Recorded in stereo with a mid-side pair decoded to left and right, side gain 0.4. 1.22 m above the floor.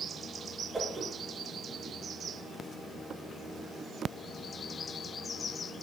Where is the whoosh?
25° right, 0.9 m.